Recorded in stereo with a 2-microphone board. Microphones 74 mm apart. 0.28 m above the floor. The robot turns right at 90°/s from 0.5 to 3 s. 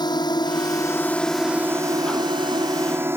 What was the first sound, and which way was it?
A drone, 75° left (ahead or behind).